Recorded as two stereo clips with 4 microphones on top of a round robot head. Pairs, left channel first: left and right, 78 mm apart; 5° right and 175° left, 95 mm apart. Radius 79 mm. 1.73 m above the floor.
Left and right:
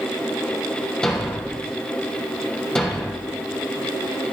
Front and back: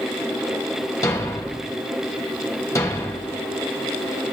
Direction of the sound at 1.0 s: 15° left.